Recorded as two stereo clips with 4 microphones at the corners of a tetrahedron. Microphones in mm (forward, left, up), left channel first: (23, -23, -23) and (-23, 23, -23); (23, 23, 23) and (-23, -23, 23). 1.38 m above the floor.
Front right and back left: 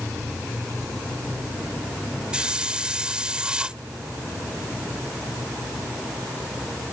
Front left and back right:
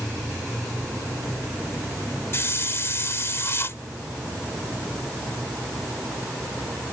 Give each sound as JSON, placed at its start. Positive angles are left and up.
{"t": 2.3, "sound": "a hiss", "azimuth_deg": 65}